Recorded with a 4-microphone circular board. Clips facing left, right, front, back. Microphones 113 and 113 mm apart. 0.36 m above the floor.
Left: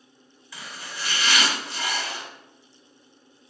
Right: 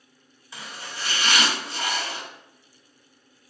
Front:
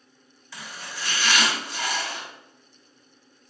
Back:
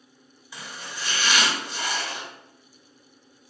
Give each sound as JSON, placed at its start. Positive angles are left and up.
{"t": 0.5, "sound": "chopping", "azimuth_deg": -125, "distance_m": 1.6}